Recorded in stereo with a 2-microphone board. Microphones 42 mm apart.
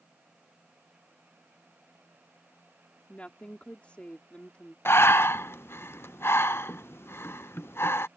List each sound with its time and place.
3.1 s a woman speaking: 30° left (ahead or behind)
4.8 s breathing: 70° left (ahead or behind)